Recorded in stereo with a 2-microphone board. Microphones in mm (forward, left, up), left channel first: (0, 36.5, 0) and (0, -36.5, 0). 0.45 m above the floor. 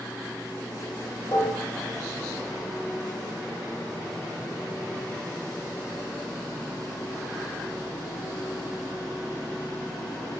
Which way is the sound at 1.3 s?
55° left (ahead or behind).